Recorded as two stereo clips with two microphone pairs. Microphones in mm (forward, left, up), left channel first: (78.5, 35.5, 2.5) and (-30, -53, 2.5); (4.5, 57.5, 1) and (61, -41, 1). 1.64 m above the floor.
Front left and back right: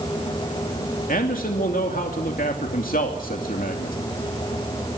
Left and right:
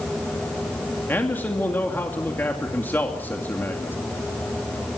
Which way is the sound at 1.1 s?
45° left.